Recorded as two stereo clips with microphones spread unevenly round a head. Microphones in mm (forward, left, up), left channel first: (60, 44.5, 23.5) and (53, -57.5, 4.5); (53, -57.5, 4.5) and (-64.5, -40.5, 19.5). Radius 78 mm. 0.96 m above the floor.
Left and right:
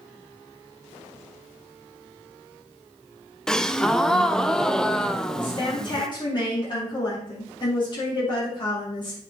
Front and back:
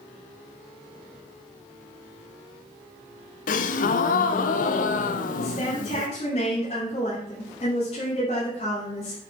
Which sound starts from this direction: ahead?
A gasp, at 3.5 s.